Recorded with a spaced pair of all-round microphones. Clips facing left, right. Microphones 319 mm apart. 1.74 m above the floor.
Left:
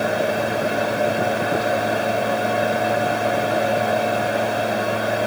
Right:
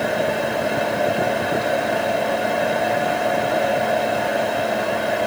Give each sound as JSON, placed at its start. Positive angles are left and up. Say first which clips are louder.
{"t": 0.0, "sound": "a fan", "louder": "even", "side_deg": 5, "distance_m": 2.0}